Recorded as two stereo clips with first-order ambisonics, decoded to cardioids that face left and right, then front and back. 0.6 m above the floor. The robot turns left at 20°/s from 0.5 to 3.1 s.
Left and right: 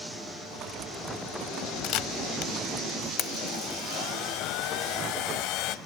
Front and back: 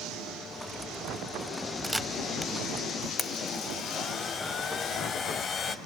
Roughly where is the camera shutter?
Left.